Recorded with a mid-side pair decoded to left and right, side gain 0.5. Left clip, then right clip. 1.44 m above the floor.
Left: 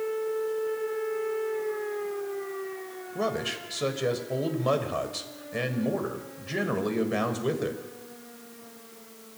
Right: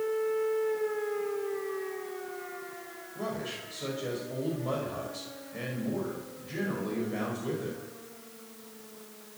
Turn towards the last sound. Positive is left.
turn(degrees=60)